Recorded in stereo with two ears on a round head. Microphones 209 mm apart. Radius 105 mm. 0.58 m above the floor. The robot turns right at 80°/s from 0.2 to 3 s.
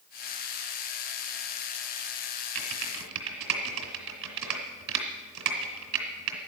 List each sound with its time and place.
2.5 s typing on a keyboard: 60° right (ahead or behind), 2.5 m; by 6.4 s 80° right, 2.5 m